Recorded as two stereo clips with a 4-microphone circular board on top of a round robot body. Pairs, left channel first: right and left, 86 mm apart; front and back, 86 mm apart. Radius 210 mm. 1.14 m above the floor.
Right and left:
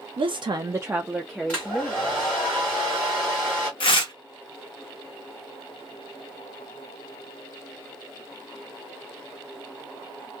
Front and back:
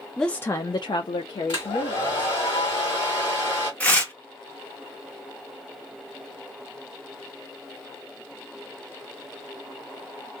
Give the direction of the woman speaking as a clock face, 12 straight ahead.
9 o'clock.